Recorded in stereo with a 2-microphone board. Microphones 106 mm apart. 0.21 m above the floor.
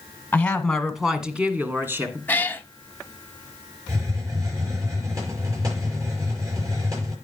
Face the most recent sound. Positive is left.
turn(degrees=-35)  # may be behind; listen again after turning